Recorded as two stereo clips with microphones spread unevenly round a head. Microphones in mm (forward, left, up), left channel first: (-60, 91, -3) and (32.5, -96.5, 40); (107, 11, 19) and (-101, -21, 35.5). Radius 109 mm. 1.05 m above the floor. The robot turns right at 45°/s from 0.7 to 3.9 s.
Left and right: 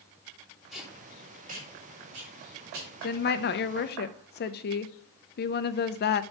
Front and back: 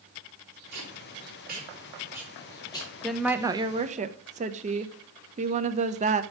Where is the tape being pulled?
155° right, 3 m; by 2.9 s 60° right, 3 m.